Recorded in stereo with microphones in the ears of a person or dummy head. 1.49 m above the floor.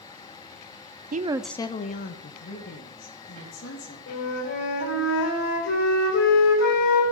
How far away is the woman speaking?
About 0.6 m.